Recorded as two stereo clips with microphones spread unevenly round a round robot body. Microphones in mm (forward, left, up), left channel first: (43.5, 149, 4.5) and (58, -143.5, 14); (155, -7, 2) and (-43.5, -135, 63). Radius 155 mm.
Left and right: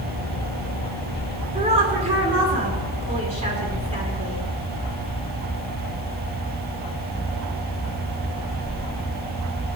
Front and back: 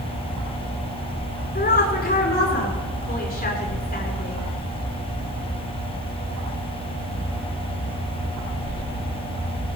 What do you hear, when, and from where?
1.6 s a woman speaking: 20° right, 9 m